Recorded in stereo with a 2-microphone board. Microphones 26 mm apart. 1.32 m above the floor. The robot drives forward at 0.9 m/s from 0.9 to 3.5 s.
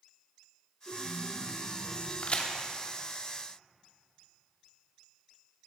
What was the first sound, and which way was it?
A chime, 75° right (ahead or behind).